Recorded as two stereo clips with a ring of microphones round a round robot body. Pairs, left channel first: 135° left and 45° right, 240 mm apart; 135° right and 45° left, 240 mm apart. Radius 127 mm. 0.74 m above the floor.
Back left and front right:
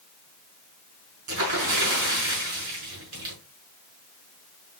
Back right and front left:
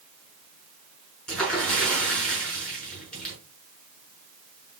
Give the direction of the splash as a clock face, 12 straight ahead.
2 o'clock.